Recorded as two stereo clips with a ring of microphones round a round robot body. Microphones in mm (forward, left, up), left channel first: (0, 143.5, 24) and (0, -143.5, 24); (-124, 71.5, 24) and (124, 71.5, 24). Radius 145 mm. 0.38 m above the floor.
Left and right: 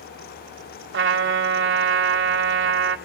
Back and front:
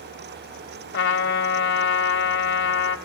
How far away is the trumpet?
About 1.6 m.